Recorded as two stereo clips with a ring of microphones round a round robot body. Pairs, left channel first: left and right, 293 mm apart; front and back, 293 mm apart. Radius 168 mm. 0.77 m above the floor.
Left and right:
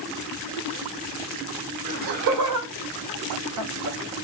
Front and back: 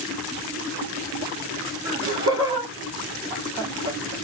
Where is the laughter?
100° right, 2 m; by 4.2 s 135° right, 0.9 m.